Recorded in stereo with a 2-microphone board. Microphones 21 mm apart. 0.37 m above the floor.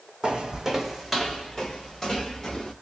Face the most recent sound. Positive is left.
turn(degrees=20)  # may be behind; listen again after turning